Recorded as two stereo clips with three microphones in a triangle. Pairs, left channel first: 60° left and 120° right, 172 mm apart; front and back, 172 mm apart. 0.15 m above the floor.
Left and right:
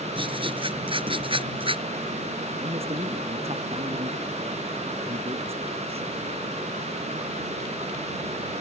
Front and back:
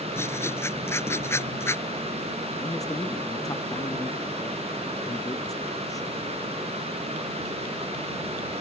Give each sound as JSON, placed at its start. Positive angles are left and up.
{"t": 0.1, "sound": "writing", "azimuth_deg": -70}
{"t": 2.6, "sound": "a man speaking", "azimuth_deg": -70}